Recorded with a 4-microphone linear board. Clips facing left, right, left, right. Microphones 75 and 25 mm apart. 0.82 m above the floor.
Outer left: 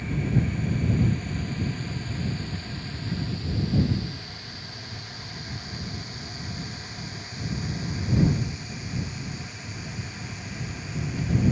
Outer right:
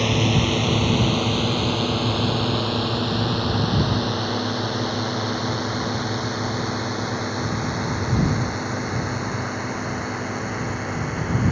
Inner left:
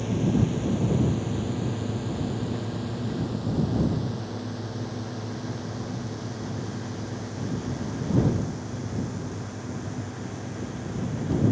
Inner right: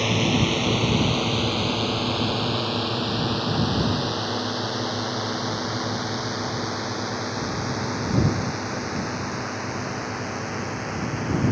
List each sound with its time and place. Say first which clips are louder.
0.0 s a drone: outer right 7 dB, inner right 4 dB; 80° right; by 11.5 s 60° right (ahead or behind)